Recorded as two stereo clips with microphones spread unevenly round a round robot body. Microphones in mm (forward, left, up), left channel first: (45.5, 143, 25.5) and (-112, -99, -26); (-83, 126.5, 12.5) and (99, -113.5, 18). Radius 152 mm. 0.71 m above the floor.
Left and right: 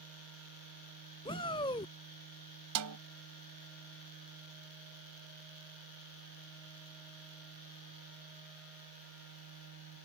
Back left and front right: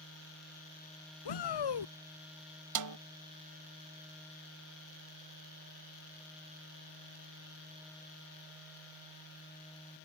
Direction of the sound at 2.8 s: 85° right.